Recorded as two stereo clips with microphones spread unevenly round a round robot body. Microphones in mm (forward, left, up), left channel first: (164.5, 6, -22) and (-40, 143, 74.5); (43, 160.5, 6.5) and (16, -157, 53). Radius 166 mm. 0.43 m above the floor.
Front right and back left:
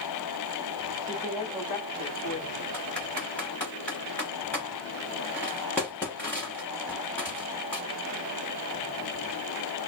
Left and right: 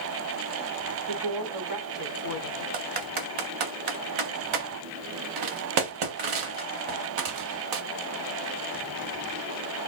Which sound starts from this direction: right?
A woman speaking, at 1.1 s.